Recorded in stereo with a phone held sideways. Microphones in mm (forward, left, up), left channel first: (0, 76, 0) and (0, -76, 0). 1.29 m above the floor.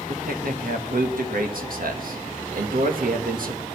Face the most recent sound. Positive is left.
turn(degrees=-75)  # may be behind; listen again after turning